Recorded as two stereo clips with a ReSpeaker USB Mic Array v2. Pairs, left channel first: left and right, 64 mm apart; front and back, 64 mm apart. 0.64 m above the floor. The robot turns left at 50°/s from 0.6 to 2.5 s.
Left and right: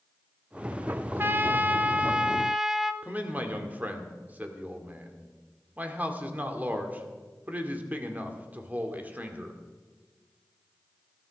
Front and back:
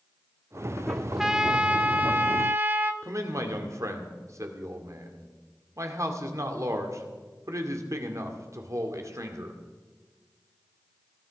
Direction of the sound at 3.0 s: 150° right.